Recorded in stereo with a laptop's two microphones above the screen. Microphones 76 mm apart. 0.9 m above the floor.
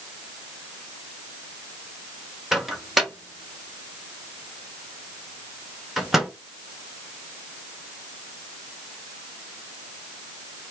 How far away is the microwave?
About 1.1 m.